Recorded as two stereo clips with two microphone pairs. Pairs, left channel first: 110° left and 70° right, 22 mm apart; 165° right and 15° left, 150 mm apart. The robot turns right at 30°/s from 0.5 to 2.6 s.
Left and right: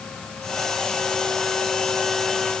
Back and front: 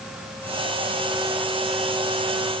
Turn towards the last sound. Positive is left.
No sound to turn to.